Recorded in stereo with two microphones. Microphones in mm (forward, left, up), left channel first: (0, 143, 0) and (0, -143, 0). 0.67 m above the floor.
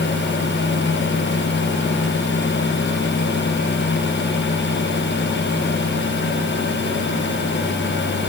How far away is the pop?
I don't hear a pop.